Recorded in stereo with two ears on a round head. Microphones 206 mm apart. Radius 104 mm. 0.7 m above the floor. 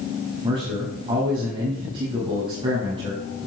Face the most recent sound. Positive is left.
turn(degrees=-20)  # may be behind; listen again after turning